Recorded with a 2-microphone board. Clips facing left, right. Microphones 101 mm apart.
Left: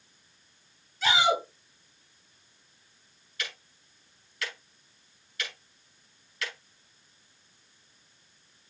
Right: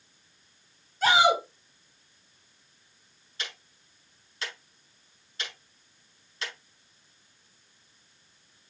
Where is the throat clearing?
I don't hear throat clearing.